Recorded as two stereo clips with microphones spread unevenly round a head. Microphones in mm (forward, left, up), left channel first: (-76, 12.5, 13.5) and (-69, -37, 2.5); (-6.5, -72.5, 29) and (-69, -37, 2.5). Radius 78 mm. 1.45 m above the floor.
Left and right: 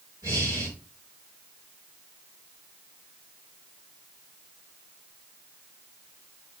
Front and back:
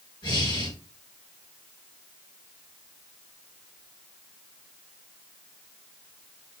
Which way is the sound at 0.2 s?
50° right.